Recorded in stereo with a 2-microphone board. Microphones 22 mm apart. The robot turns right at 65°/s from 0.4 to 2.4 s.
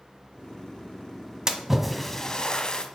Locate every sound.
1.5 s a splash: 30° right (ahead or behind), 1.2 m; by 2.9 s 30° left (ahead or behind), 1.2 m